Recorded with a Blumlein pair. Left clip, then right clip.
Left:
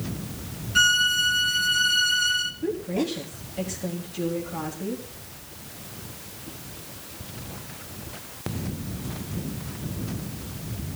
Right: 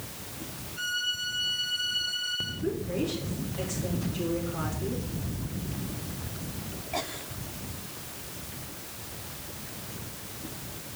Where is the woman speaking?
25° left, 4 m.